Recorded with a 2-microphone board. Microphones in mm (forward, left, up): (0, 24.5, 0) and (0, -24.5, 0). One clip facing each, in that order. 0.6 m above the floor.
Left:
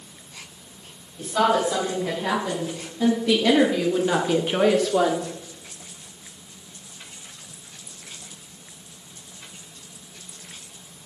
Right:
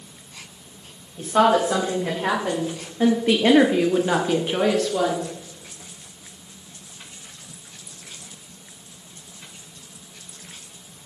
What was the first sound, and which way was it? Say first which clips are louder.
A woman speaking: right 3 dB; 45° right (ahead or behind).